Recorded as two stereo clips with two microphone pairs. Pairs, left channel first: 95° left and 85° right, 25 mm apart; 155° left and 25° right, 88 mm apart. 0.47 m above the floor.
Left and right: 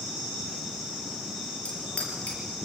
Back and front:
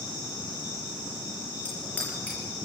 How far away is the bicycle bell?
About 7.5 m.